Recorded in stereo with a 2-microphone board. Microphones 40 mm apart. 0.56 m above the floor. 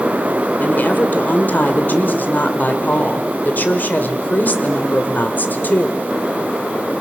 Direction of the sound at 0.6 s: 45° left (ahead or behind).